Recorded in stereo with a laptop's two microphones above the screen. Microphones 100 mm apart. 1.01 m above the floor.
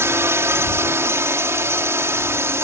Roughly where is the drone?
Right.